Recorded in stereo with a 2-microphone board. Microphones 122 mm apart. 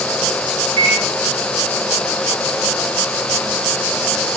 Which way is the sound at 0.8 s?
30° left (ahead or behind).